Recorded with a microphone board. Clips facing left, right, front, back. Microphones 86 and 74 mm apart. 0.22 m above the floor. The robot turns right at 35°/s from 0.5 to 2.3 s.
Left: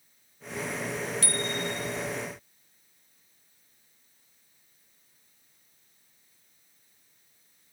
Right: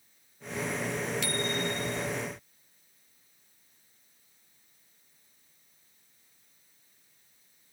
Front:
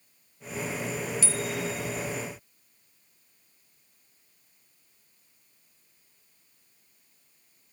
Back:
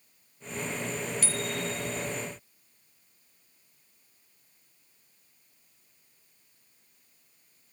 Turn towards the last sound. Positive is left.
turn(degrees=180)